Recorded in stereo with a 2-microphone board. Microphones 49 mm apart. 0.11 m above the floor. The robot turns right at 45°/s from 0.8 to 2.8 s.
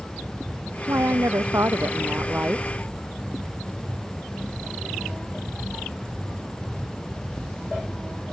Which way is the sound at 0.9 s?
110° right.